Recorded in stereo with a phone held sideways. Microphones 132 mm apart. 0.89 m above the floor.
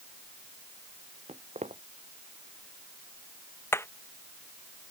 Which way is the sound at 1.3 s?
60° right (ahead or behind).